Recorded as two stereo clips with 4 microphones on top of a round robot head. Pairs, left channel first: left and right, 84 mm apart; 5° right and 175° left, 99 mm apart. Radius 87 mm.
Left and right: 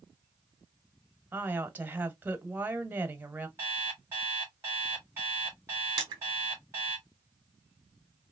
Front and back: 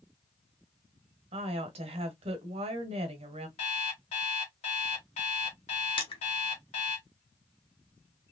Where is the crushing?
45° right, 1.0 m.